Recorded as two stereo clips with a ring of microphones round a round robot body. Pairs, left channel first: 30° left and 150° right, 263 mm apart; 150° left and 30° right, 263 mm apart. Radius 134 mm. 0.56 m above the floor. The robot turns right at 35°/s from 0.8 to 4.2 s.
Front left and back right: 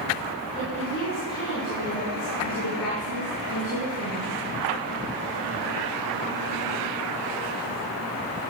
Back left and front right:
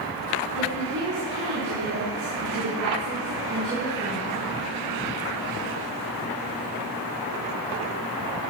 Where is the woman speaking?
55° right, 4.5 m; by 4.3 s 60° left, 4.5 m.